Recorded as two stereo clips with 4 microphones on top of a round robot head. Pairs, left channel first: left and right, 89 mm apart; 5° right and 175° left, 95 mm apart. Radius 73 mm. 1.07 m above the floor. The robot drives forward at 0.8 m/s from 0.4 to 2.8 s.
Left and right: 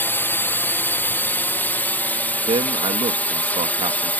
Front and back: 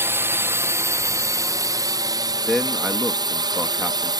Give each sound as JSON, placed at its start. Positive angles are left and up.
{"t": 0.0, "sound": "a drone", "azimuth_deg": 135}
{"t": 2.5, "sound": "a man speaking", "azimuth_deg": -95}